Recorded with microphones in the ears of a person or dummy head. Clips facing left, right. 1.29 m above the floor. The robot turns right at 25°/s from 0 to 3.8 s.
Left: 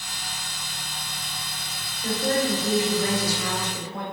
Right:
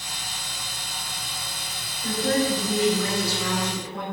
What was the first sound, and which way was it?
A woman speaking, 35° left.